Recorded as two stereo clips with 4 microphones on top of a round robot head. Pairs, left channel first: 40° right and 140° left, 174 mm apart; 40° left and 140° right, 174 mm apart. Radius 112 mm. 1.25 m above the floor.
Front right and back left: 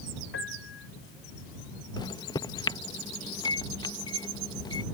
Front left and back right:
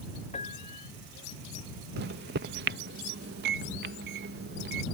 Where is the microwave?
110° right.